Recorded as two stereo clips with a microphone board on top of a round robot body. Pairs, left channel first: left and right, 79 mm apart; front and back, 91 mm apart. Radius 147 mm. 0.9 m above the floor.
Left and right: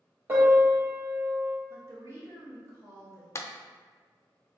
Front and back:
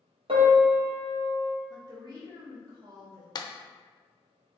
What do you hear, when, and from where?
0.3 s a piano: 155° right, 1.0 m
1.7 s a woman speaking: 140° right, 1.5 m
3.4 s a clap: 35° left, 0.6 m